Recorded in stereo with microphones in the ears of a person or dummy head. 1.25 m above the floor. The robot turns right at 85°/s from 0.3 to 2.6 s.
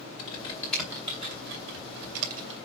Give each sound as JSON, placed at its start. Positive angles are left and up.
{"t": 0.2, "sound": "typing on a keyboard", "side_deg": 40, "distance_m": 3.0}